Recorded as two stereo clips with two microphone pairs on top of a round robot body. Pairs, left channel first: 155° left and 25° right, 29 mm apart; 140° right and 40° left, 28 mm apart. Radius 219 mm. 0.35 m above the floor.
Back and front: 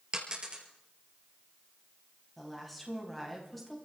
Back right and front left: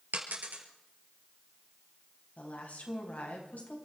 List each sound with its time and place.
0.1 s a dropped coin: 35° left, 3 m
2.4 s a woman speaking: 120° right, 4.5 m